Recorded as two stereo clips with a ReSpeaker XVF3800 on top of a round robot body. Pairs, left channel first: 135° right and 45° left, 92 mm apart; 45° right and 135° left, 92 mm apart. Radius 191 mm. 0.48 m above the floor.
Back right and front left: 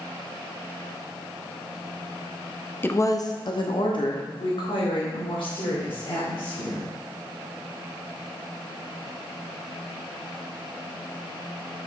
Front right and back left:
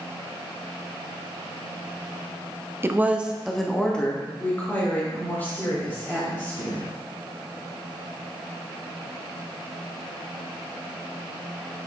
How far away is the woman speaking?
About 1.0 m.